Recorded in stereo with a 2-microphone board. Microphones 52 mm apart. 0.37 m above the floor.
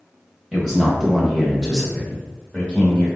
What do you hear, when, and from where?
0.5 s a man speaking: 5° right (ahead or behind), 1.3 m; by 3.1 s 15° left (ahead or behind), 1.1 m